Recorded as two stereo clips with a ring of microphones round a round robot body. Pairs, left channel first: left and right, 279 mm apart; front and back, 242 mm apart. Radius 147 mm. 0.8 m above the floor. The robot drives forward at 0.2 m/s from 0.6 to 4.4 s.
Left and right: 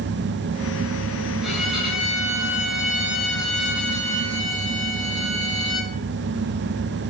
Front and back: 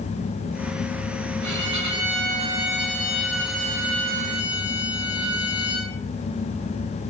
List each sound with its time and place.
1.4 s a violin: straight behind, 6 m